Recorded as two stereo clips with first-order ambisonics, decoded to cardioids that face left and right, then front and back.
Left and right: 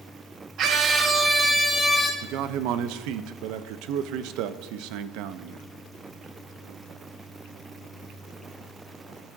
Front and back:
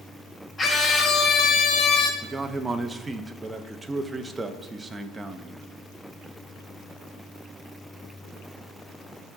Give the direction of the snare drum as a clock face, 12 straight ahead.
I don't hear a snare drum.